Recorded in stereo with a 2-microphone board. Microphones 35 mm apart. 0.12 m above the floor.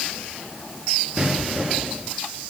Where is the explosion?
15° right (ahead or behind), 2.5 m.